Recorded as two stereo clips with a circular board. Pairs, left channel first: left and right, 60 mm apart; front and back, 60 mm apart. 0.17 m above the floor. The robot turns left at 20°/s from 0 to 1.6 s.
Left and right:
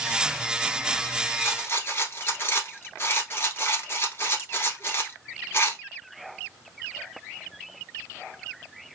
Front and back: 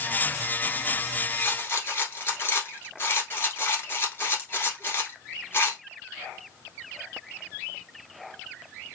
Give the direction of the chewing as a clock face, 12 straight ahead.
No chewing in this recording.